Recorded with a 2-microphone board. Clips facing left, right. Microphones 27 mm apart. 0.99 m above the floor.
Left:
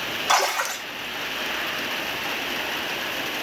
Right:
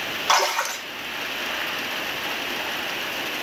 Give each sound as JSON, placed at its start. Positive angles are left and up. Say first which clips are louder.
{"t": 0.3, "sound": "a splash", "louder": "right 1 dB", "side_deg": -35, "distance_m": 2.5}